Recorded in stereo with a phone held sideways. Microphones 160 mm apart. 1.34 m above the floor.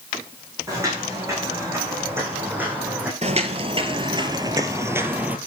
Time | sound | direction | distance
0.7 | footsteps | 20° right (ahead or behind) | 7 m
3.2 | footsteps | 40° right (ahead or behind) | 1.7 m